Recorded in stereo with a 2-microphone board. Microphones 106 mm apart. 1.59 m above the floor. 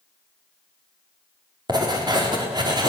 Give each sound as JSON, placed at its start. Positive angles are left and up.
{"t": 1.7, "sound": "writing", "side_deg": -40, "distance_m": 4.0}